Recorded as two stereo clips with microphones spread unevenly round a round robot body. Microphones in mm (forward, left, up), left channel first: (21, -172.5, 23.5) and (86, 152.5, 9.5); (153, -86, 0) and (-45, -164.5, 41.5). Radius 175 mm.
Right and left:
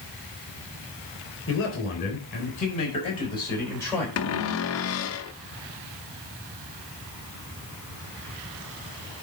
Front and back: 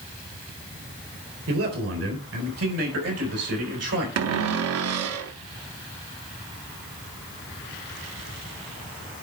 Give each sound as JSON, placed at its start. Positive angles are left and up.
{"t": 1.5, "sound": "a man speaking", "azimuth_deg": -155, "distance_m": 4.0}
{"t": 4.2, "sound": "a cupboard door", "azimuth_deg": -150, "distance_m": 0.6}